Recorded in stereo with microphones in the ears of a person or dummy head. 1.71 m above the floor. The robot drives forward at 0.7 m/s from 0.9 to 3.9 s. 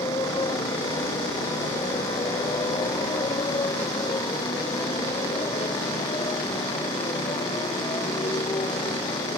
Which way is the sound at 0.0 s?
20° left (ahead or behind).